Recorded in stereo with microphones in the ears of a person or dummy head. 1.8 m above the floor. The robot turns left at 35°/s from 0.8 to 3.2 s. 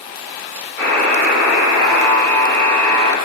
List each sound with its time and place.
0.8 s a buzzer: 15° left, 0.8 m; by 3.1 s 65° right, 0.8 m